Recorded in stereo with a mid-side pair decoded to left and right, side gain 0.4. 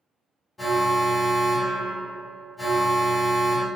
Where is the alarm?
30° left, 1.4 m.